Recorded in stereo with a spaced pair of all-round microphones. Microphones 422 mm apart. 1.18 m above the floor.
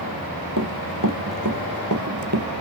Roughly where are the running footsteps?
Right.